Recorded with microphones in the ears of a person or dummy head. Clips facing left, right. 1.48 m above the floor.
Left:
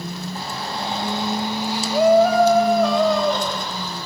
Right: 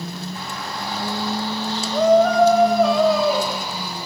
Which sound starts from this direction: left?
A shout, at 0.3 s.